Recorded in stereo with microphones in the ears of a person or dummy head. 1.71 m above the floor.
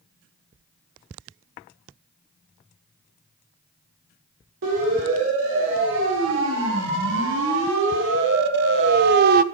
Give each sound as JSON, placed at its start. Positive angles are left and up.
{"t": 4.6, "sound": "a siren", "side_deg": -75, "distance_m": 6.5}